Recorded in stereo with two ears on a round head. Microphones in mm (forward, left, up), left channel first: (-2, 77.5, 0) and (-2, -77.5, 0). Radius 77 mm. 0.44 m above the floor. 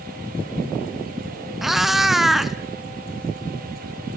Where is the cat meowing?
Centre (ahead or behind), 0.9 m.